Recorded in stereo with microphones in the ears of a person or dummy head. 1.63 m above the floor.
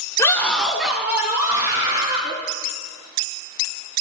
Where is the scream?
20° left (ahead or behind), 1.4 m; by 2.4 s 25° right (ahead or behind), 4 m.